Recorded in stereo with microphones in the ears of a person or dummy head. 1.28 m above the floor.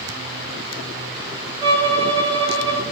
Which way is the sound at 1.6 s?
20° right (ahead or behind).